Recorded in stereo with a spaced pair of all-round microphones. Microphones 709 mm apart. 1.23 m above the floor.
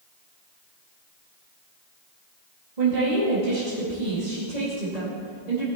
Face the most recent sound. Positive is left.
turn(degrees=-90)